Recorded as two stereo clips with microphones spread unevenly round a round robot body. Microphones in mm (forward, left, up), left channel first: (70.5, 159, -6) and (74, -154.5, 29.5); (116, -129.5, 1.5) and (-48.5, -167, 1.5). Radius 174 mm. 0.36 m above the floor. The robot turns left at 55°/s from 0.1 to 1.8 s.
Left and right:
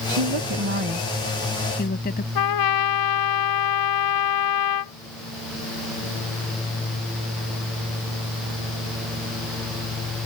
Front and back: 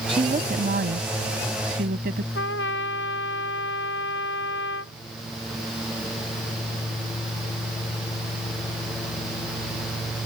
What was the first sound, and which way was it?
A woman speaking, 110° right.